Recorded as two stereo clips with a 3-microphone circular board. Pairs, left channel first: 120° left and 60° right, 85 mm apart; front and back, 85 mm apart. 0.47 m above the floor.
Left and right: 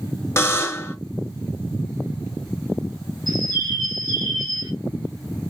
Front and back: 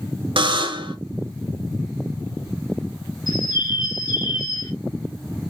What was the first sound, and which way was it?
A buzzer, straight behind.